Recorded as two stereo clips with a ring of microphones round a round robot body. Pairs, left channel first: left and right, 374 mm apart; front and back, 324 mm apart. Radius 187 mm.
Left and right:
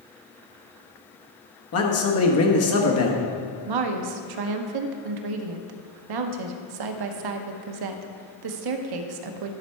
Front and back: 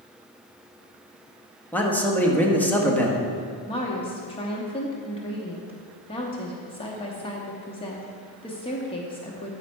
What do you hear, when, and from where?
1.7 s a man speaking: 80° left, 1.3 m
3.7 s a woman speaking: 75° right, 0.8 m